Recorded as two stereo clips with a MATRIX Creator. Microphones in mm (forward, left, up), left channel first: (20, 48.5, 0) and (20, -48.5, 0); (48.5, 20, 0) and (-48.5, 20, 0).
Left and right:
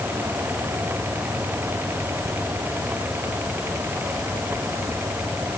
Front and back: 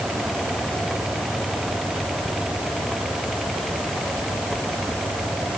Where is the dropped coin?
No dropped coin in this recording.